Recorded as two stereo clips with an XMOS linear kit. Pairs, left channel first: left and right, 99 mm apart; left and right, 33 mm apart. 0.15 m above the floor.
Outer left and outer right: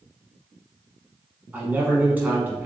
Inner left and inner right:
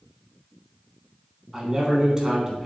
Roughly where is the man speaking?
Centre.